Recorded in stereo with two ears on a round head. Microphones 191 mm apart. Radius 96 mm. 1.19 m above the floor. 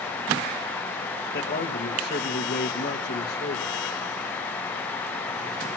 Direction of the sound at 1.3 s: 50° left (ahead or behind).